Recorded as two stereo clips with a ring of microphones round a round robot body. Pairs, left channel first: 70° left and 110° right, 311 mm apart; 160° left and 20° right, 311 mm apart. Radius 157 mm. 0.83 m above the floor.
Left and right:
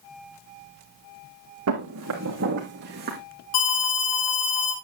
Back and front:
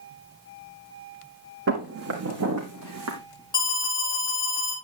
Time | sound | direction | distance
1.7 | footsteps | 70° right | 3 m
3.5 | an alarm | 80° left | 5 m